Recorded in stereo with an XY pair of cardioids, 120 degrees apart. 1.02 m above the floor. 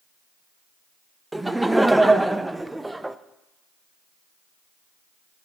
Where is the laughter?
10° right, 0.5 m.